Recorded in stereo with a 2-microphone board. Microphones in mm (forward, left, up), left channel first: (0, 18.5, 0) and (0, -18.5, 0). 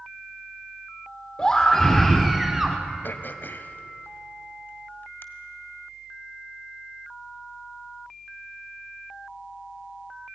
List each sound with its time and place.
1.4 s a scream: 25° left (ahead or behind), 2 m; by 2.8 s 10° right (ahead or behind), 1.7 m
3.0 s throat clearing: 70° left (ahead or behind), 1.6 m